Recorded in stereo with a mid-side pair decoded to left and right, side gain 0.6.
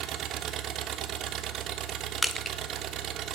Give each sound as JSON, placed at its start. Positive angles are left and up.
{"t": 0.0, "sound": "an engine running", "azimuth_deg": -55, "distance_m": 1.1}
{"t": 2.2, "sound": "crushing", "azimuth_deg": 0, "distance_m": 1.0}